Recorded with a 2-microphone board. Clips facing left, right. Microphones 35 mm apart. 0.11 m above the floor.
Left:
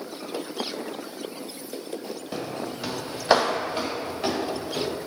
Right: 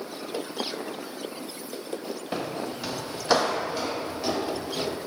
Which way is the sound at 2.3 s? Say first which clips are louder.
Right 1 dB; 20° right (ahead or behind).